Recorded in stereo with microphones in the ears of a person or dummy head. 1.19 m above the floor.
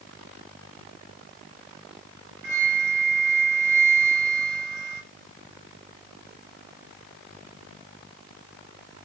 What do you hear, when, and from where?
2.4 s a flute: 60° right (ahead or behind), 4.5 m